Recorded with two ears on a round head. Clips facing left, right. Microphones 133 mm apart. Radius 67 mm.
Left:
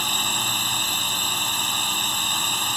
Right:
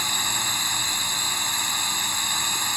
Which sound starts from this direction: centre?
A drone, at 0.0 s.